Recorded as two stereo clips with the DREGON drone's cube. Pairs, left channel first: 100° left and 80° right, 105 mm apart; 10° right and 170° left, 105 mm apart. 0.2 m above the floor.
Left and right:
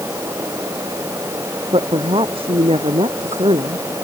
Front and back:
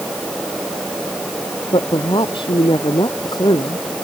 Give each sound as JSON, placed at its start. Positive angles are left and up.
{"t": 1.7, "sound": "a woman speaking", "azimuth_deg": -50}